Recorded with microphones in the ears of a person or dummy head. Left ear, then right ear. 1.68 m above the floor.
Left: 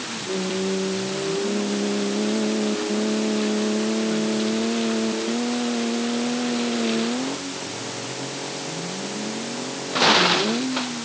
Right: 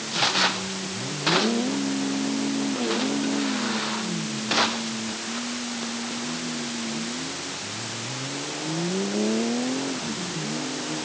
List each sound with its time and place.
Only background noise.